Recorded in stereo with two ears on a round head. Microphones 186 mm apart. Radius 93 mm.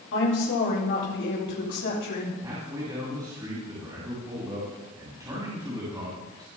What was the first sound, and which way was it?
A woman speaking, 60° left (ahead or behind).